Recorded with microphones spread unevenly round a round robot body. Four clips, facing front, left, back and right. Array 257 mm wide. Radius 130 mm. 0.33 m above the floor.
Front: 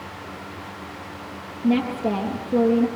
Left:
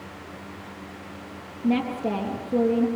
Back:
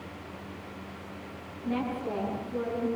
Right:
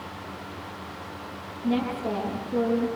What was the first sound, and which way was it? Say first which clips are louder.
A woman speaking: left 2 dB, front 10 dB; 30° left.